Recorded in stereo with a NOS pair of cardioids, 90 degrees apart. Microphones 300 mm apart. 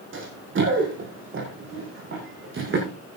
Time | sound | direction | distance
0.1 | running footsteps | 45° right | 5.5 m